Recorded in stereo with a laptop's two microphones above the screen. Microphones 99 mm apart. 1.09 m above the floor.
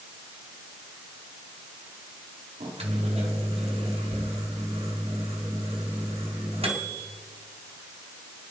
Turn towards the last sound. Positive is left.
turn(degrees=-85)